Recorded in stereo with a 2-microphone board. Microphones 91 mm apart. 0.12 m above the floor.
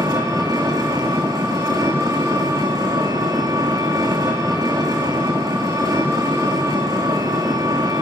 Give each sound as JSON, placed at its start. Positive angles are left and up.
{"t": 0.0, "sound": "an engine running", "side_deg": -40, "distance_m": 3.0}